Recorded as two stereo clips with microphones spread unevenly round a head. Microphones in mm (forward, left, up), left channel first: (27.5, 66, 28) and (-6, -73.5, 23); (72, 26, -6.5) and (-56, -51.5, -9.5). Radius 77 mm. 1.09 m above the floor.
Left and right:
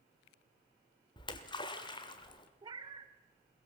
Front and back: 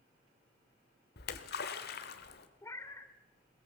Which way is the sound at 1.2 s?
20° left.